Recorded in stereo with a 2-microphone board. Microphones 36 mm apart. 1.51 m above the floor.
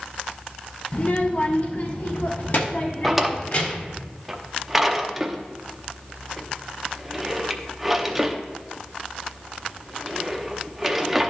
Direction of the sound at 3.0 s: 5° right (ahead or behind).